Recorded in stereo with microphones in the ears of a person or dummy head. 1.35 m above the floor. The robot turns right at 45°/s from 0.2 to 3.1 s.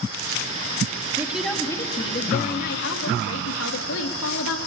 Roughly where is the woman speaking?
Ahead.